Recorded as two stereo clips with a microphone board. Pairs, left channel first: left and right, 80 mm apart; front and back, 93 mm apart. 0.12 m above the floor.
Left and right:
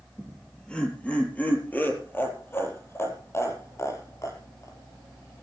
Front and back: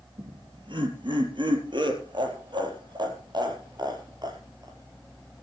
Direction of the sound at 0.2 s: 175° left.